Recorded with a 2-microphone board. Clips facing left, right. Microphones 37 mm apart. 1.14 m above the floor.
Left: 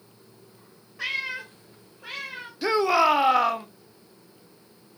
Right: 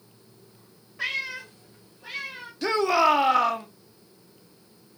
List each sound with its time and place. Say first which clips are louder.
1.0 s a cat meowing: even; 5° right (ahead or behind), 0.7 m; by 2.5 s 70° left (ahead or behind), 1.9 m
2.6 s a shout: left 1 dB; 10° left (ahead or behind), 0.5 m